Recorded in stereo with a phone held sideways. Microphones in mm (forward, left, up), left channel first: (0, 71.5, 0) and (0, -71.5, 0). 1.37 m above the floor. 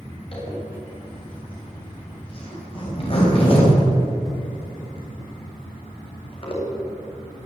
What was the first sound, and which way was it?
A zipper, 40° left (ahead or behind).